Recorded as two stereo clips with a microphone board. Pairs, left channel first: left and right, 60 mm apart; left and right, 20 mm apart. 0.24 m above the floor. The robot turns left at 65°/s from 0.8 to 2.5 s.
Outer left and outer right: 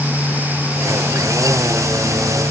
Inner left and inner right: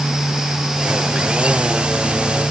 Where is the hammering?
I don't hear hammering.